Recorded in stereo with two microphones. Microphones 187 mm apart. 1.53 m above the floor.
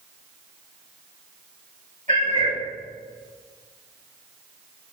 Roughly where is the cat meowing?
Right.